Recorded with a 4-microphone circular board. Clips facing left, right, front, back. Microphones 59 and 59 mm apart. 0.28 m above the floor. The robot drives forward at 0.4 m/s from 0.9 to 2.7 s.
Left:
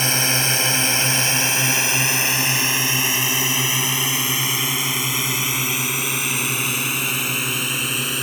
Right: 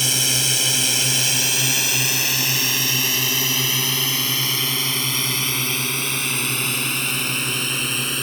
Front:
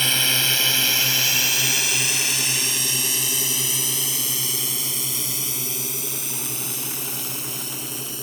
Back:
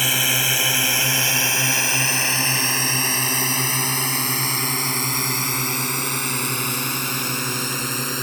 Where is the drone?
105° left; by 8.2 s 175° left.